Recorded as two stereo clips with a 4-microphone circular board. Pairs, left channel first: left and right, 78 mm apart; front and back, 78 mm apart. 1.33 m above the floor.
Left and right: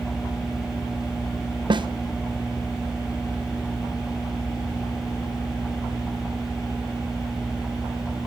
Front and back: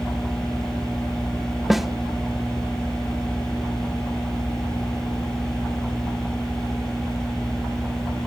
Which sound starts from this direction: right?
A snare drum, at 1.7 s.